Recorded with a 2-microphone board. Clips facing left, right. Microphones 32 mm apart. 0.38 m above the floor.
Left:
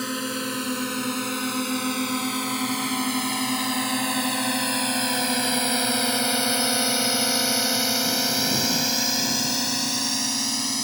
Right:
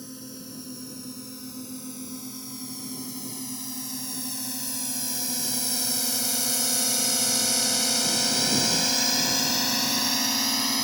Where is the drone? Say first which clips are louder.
Left 13 dB; 70° left (ahead or behind); by 10.8 s 10° right (ahead or behind).